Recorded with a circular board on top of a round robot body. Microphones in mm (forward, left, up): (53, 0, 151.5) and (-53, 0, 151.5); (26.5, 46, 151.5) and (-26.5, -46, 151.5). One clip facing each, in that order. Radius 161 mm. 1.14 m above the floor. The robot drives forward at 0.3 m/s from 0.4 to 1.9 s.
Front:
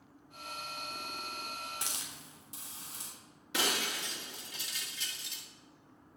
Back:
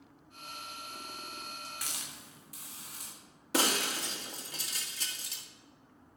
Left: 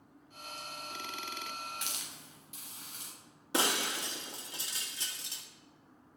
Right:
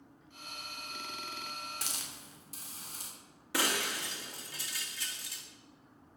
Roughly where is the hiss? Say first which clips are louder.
Front 1 dB, right 1 dB; ahead right.